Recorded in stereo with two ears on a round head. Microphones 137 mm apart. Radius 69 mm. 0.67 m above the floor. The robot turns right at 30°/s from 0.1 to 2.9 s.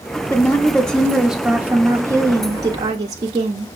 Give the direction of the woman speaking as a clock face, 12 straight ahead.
7 o'clock.